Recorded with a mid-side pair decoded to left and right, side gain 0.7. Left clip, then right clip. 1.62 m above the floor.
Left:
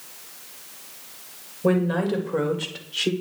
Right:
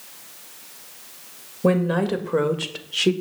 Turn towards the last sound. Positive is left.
turn(degrees=-30)